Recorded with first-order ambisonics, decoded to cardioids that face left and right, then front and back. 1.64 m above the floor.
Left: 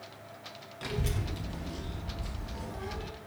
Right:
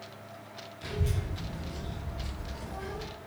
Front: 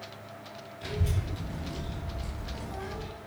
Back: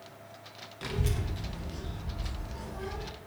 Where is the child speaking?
145° left, 0.8 m; by 3.1 s 10° right, 1.8 m.